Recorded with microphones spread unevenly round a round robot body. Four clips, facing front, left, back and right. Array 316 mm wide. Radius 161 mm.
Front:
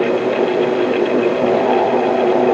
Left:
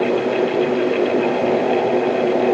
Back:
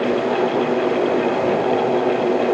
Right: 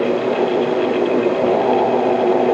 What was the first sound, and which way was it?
Only background noise.